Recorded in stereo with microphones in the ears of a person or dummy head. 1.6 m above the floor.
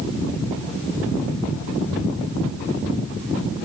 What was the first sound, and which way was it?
Only background noise.